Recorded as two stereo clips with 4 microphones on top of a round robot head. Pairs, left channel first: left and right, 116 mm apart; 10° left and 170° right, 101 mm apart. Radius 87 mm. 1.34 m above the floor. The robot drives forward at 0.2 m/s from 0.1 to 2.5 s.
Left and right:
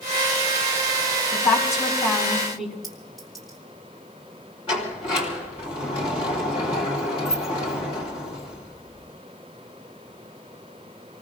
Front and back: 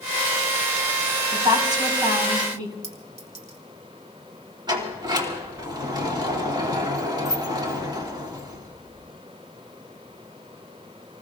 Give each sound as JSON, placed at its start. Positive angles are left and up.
{"t": 1.3, "sound": "a woman speaking", "azimuth_deg": 140, "distance_m": 5.5}
{"t": 2.8, "sound": "a clink", "azimuth_deg": 180, "distance_m": 2.0}
{"t": 4.7, "sound": "a sliding door", "azimuth_deg": 140, "distance_m": 3.0}